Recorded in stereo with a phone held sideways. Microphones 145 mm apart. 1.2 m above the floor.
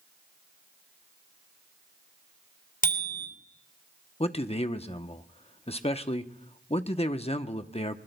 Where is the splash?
I don't hear a splash.